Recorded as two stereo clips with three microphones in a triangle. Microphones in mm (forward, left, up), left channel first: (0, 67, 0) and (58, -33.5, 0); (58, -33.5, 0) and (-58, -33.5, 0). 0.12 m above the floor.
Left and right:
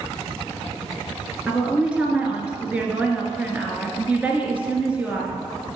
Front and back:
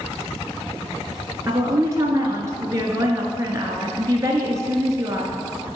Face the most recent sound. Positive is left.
turn(degrees=-135)